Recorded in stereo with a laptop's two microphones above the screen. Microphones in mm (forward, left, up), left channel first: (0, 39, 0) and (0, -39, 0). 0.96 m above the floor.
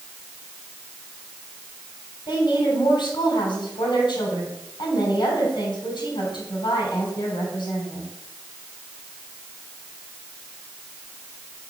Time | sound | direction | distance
2.3 | a woman speaking | 80° left | 3.5 m